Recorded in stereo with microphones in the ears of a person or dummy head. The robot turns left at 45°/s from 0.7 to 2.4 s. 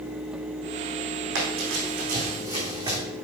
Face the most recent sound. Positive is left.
turn(degrees=-25)  # may be behind; listen again after turning